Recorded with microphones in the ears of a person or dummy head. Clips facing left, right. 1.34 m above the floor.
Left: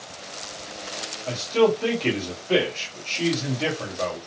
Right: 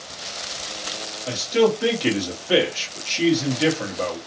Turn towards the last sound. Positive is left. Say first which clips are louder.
# right 1 dB
turn(degrees=-15)  # may be behind; listen again after turning